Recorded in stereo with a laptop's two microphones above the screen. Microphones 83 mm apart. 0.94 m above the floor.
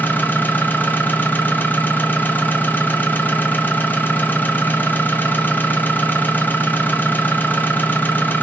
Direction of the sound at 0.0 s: 20° left (ahead or behind).